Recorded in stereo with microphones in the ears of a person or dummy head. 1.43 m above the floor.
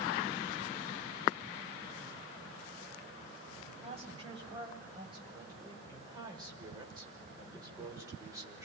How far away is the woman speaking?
About 9.5 m.